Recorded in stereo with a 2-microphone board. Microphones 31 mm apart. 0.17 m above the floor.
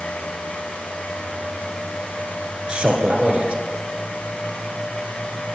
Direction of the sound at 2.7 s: 45° right (ahead or behind).